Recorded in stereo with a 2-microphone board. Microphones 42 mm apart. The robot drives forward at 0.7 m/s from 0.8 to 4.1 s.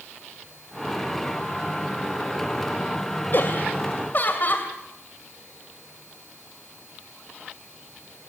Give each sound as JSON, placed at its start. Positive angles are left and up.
{"t": 3.3, "sound": "laughter", "side_deg": 55, "distance_m": 2.0}